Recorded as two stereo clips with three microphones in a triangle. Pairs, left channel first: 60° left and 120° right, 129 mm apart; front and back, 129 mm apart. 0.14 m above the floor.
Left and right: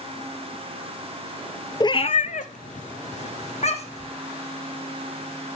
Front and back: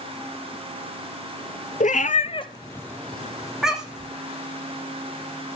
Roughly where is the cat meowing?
Ahead.